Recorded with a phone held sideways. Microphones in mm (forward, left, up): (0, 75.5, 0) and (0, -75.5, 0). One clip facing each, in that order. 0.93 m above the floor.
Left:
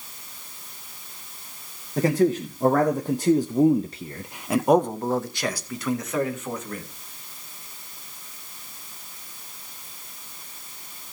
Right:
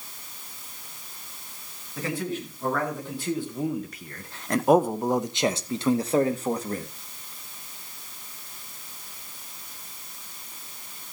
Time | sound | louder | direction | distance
2.0 | a man speaking | left 10 dB | 45° left (ahead or behind) | 1.5 m